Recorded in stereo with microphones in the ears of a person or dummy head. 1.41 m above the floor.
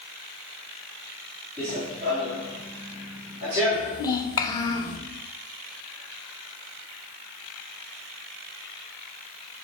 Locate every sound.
1.6 s running footsteps: 10° left (ahead or behind), 1.7 m; by 4.0 s 10° right (ahead or behind), 4 m
3.7 s a child speaking: 25° left (ahead or behind), 1.0 m